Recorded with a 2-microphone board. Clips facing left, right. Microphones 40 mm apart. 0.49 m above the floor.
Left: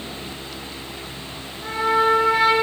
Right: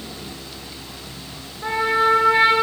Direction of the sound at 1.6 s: 25° right (ahead or behind).